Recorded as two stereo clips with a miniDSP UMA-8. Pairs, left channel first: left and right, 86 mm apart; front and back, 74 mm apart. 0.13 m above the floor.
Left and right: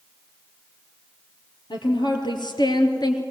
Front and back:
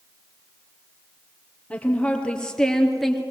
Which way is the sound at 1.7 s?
75° left.